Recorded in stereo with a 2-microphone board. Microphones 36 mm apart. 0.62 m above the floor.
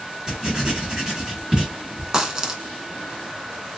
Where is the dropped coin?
20° right (ahead or behind), 0.6 m.